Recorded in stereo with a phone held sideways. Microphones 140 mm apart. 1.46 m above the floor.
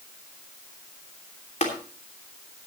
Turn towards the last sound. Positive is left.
turn(degrees=60)  # may be behind; listen again after turning